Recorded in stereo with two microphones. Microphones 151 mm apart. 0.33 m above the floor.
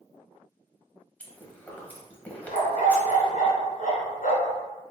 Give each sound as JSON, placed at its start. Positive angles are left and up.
{"t": 1.2, "sound": "chewing", "side_deg": 10, "distance_m": 1.0}
{"t": 2.5, "sound": "a dog barking", "side_deg": 80, "distance_m": 1.4}